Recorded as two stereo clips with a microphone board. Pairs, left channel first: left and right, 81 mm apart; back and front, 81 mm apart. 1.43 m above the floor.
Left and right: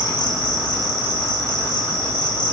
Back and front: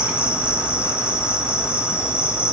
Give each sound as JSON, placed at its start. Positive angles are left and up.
{"t": 0.0, "sound": "an insect", "azimuth_deg": 75, "distance_m": 3.0}